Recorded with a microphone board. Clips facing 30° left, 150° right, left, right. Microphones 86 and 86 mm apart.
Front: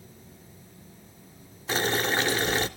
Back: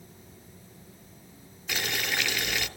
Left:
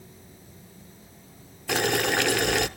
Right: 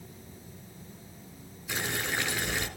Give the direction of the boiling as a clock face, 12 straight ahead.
9 o'clock.